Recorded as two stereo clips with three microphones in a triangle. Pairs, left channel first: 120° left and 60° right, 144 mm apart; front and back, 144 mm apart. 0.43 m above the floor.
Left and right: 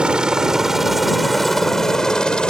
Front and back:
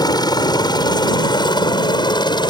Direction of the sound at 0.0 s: 15° left.